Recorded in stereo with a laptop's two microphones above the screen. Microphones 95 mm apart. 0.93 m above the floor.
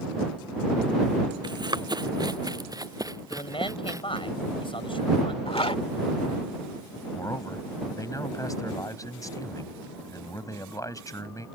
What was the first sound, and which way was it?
Running footsteps, 50° right (ahead or behind).